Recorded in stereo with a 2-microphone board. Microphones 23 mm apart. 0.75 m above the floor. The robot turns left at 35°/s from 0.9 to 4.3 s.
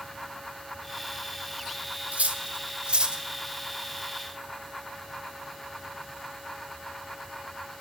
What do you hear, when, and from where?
2.1 s cutlery clinking: 70° right (ahead or behind), 1.4 m; by 3.2 s 30° right (ahead or behind), 1.4 m